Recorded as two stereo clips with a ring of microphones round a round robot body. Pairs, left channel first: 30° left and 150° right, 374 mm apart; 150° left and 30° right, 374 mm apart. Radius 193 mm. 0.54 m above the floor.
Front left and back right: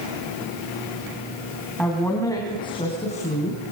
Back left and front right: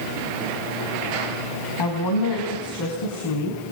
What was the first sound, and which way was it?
A woman speaking, 120° left.